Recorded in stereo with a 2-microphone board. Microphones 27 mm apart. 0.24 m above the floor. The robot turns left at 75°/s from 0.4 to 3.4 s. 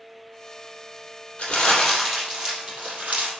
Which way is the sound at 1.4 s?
40° left.